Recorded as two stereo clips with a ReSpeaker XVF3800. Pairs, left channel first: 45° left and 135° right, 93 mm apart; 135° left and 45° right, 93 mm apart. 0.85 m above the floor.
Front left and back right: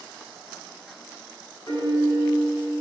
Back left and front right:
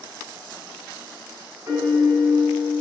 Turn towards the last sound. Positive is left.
turn(degrees=15)